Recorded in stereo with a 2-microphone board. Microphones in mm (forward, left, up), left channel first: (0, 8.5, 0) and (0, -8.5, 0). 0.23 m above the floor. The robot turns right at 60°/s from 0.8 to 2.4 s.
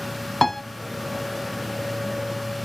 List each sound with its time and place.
0.4 s a piano: 15° left (ahead or behind), 0.7 m